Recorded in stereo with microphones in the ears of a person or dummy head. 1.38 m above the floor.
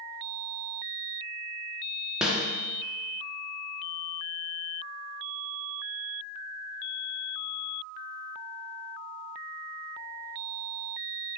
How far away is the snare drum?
About 0.5 m.